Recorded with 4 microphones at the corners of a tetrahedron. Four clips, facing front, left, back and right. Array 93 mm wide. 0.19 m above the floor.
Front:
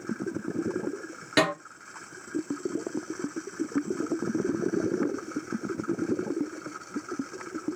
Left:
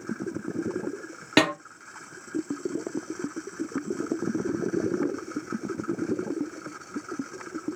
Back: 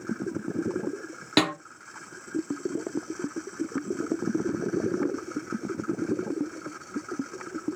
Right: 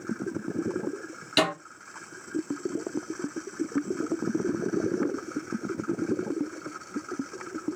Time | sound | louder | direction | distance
1.4 | a snare drum | left 3 dB, even | 110° left | 1.9 m